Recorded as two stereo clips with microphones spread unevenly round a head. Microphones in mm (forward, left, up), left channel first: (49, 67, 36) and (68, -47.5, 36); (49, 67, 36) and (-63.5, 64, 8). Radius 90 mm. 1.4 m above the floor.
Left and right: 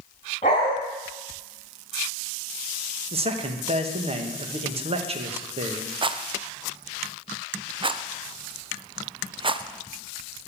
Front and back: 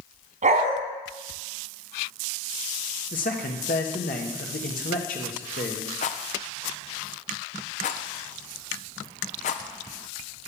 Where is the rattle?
35° right, 0.6 m.